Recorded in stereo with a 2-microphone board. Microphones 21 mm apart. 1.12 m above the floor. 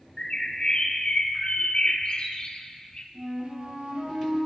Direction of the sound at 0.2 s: 50° left (ahead or behind).